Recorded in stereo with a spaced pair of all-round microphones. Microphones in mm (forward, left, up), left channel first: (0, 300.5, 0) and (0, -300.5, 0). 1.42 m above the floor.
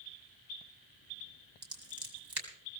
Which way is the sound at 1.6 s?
40° right (ahead or behind).